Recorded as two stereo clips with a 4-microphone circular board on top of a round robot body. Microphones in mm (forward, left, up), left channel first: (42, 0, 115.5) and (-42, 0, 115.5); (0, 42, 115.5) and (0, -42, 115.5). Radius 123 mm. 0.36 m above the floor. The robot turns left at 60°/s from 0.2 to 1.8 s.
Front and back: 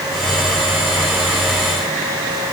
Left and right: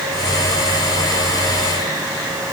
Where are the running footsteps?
No running footsteps in this recording.